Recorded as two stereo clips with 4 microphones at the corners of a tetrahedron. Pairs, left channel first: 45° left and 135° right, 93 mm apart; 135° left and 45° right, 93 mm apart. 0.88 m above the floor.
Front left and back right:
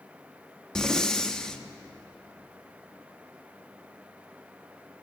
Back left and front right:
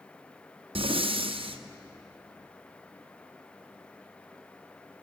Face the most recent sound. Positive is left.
turn(degrees=-35)